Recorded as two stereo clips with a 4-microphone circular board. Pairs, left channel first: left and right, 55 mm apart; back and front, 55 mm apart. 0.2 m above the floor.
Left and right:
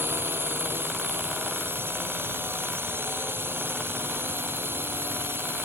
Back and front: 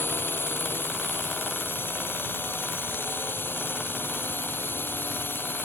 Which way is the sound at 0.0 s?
130° right.